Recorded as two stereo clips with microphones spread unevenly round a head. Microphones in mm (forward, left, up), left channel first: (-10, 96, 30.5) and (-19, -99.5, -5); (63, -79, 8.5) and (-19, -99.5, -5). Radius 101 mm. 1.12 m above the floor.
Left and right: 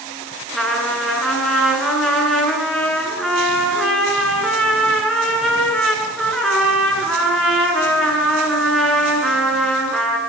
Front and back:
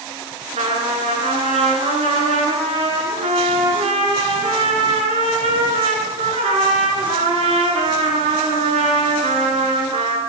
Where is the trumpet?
175° left, 7 m.